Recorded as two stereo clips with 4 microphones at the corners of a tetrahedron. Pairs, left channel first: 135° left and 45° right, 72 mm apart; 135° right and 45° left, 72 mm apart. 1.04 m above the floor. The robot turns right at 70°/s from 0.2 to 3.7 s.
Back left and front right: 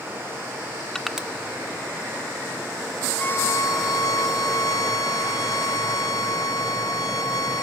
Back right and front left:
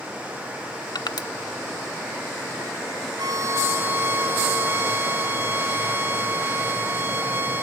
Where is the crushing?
140° right, 1.1 m; by 1.3 s 120° right, 1.1 m.